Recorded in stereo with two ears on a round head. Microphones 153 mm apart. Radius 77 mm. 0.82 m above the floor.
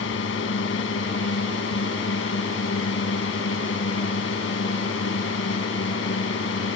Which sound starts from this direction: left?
A drone, at 0.0 s.